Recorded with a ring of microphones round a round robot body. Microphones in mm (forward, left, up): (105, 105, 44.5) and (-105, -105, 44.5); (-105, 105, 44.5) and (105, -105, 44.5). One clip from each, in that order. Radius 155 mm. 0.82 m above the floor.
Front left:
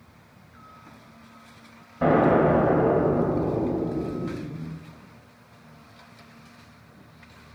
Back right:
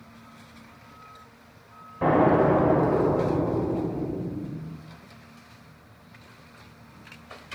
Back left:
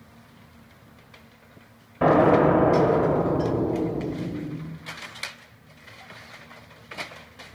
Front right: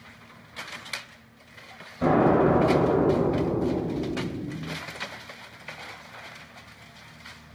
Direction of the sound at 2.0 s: 130° left.